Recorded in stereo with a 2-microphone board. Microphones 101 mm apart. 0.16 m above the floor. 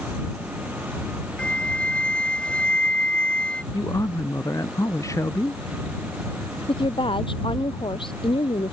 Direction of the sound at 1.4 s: 10° left (ahead or behind).